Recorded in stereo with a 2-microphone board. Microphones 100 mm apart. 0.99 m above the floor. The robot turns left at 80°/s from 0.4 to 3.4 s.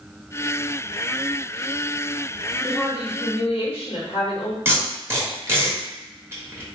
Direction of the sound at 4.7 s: 25° right (ahead or behind).